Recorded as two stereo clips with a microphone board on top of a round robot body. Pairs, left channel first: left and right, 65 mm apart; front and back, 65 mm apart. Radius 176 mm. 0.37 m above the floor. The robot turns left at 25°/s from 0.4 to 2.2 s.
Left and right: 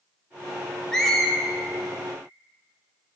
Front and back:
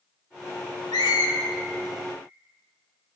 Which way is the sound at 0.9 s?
10° left.